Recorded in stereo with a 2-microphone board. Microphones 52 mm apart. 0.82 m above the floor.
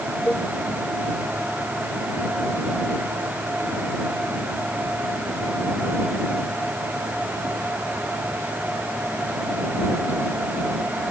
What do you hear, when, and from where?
0.3 s a cowbell: 35° left (ahead or behind)